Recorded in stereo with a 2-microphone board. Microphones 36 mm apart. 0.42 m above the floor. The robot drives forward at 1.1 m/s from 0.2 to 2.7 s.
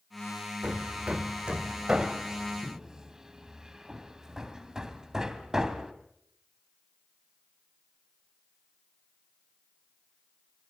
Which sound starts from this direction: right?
Hammering, at 0.6 s.